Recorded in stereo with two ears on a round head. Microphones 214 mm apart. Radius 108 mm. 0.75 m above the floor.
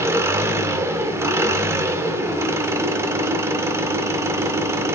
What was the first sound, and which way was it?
An engine running, 10° right (ahead or behind).